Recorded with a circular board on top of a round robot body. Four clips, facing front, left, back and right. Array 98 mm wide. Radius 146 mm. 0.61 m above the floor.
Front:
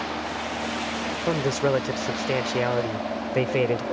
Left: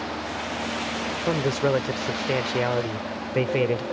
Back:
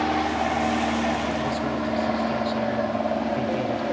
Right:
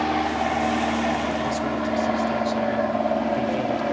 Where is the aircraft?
130° right; by 3.9 s 100° right.